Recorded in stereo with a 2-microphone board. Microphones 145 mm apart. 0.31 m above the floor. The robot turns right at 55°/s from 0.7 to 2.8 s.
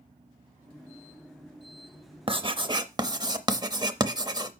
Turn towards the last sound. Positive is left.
turn(degrees=-30)  # may be behind; listen again after turning